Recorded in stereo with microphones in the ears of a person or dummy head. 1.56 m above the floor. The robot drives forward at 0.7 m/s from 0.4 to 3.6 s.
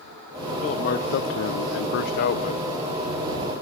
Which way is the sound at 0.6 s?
35° left (ahead or behind).